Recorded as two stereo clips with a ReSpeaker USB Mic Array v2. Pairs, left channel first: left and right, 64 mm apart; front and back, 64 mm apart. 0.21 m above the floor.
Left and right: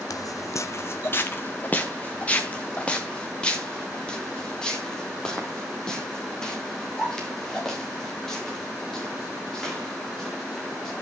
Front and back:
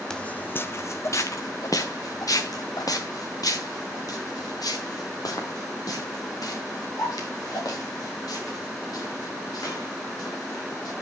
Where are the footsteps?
80° left, 0.6 m; by 10.9 s 10° left, 8.5 m.